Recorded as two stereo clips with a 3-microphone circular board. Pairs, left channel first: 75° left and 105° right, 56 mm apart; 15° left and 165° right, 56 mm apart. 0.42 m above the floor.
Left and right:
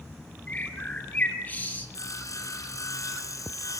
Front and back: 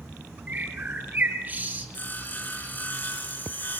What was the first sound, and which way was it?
A bird, 135° left.